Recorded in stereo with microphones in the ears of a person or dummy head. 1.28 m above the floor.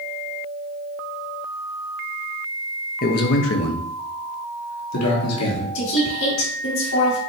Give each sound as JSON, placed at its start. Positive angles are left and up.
{"t": 3.0, "sound": "a man speaking", "side_deg": 40, "distance_m": 0.5}
{"t": 5.8, "sound": "a woman speaking", "side_deg": 80, "distance_m": 2.5}